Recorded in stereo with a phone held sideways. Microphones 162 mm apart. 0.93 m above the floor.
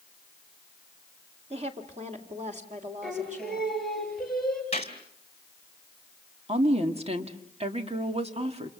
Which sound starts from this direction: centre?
Singing, at 3.0 s.